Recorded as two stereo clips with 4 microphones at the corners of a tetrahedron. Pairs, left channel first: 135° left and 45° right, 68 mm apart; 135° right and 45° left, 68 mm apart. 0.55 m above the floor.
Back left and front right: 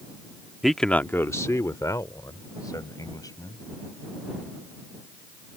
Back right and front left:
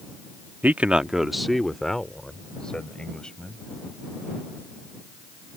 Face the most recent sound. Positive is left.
turn(degrees=150)